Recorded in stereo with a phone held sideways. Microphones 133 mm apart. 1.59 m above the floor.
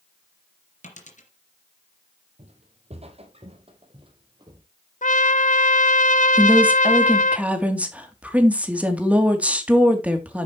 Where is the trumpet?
70° left (ahead or behind), 0.8 m.